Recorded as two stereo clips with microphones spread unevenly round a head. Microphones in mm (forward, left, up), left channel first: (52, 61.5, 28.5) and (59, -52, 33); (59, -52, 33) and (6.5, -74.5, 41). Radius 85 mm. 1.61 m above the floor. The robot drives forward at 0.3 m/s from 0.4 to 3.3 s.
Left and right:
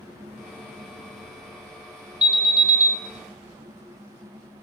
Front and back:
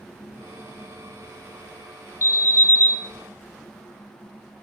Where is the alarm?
10° right, 0.6 m; by 2.9 s 20° right, 0.5 m.